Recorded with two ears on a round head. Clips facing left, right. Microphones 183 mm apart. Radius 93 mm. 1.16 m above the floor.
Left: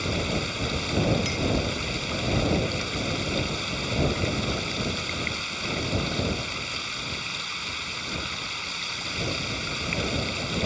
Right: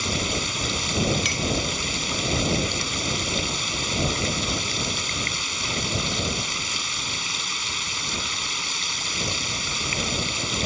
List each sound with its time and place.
0.0 s running water: 55° right (ahead or behind)
1.2 s a clink: 70° right (ahead or behind)